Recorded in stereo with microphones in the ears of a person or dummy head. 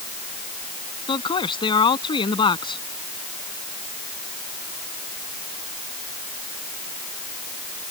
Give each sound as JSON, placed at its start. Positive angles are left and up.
{"t": 1.1, "sound": "a man speaking", "side_deg": 25}